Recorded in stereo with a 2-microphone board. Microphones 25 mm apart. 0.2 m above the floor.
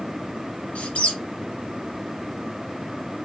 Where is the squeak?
60° left (ahead or behind), 2 m.